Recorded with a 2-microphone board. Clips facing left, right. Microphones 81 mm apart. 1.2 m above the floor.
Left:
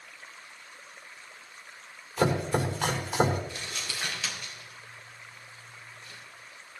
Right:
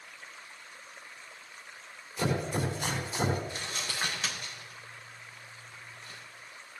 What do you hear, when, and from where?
2.2 s chopping: 85° left, 4.5 m
3.5 s crumpling: 35° right (ahead or behind), 5.5 m